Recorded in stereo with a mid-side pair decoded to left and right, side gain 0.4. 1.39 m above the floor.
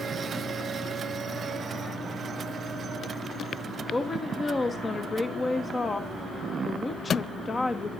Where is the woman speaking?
35° left, 1.3 m.